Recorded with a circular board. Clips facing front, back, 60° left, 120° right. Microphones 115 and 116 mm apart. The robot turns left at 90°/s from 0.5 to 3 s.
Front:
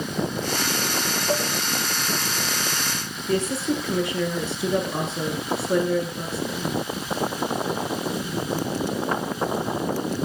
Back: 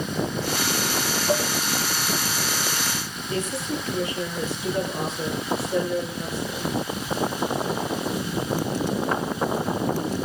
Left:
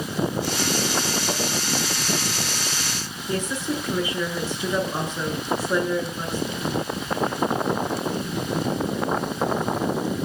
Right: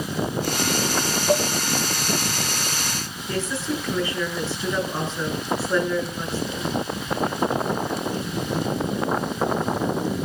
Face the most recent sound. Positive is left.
turn(degrees=-15)